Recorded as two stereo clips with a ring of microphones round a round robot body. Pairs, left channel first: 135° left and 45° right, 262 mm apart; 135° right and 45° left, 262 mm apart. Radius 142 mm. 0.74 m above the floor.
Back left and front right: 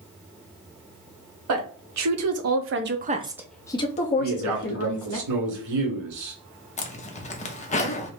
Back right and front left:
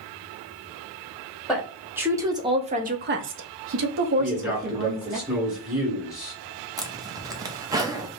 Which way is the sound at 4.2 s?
40° right.